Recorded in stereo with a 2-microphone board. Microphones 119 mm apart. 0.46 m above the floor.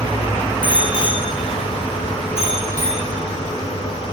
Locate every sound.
0.6 s a bicycle bell: 40° left (ahead or behind), 3.5 m; by 4.0 s 60° left (ahead or behind), 7 m